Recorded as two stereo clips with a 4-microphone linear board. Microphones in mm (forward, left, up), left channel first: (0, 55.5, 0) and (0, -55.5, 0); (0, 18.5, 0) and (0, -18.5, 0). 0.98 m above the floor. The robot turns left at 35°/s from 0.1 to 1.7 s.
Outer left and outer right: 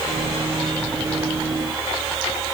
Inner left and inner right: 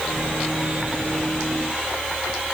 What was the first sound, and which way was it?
Only background noise.